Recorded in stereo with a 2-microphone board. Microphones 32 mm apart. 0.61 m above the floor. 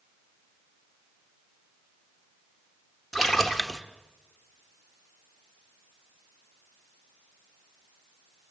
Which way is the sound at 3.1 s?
Centre (ahead or behind).